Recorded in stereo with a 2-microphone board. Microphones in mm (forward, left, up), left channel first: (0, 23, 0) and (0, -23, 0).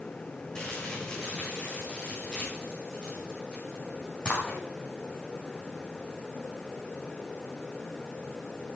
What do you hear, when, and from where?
0.6 s crumpling: 20° left (ahead or behind), 6 m